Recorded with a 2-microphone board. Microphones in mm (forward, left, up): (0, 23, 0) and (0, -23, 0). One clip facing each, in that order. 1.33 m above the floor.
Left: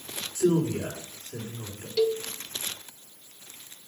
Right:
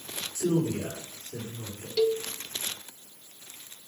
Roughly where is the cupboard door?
No cupboard door in this recording.